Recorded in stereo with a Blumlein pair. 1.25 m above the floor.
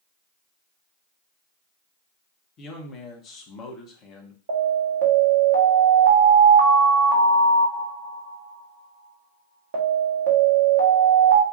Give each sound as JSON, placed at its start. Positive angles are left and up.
{"t": 2.6, "sound": "a man speaking", "azimuth_deg": 30, "distance_m": 1.1}
{"t": 4.5, "sound": "an alarm", "azimuth_deg": -60, "distance_m": 1.3}